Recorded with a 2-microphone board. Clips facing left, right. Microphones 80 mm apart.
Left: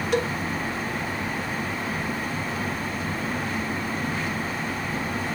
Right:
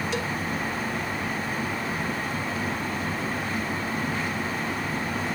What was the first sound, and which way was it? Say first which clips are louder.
A cowbell: left 5 dB; 55° left (ahead or behind).